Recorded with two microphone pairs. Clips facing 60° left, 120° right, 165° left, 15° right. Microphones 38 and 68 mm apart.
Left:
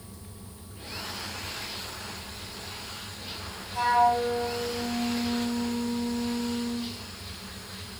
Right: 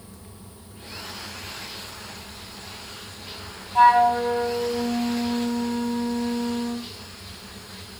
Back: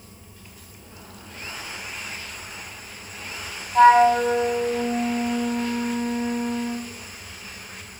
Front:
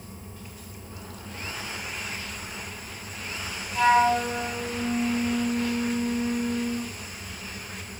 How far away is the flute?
About 2.5 m.